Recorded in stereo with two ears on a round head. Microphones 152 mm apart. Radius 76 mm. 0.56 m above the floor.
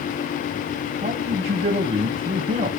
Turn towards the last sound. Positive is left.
turn(degrees=-40)  # may be behind; listen again after turning